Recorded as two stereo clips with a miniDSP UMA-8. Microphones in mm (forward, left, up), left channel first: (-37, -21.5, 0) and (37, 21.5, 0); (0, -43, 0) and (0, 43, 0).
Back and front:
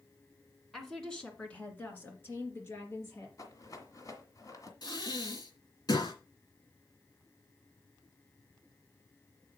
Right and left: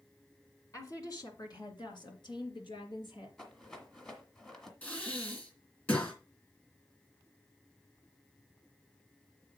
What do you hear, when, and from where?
0.7 s a woman speaking: 60° right, 1.9 m; by 3.3 s 95° right, 3.5 m
3.4 s a rattle: 165° right, 1.8 m
4.8 s breathing: 150° right, 2.5 m